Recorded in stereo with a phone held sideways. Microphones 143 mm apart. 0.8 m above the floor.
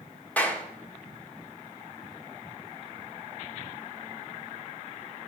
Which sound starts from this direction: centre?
A clap, at 0.4 s.